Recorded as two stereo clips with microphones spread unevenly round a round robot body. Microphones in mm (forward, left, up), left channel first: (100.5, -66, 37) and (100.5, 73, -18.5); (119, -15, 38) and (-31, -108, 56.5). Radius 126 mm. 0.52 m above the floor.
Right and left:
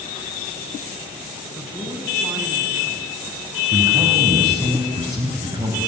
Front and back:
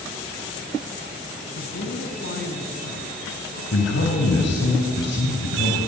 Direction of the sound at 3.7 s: 35° left.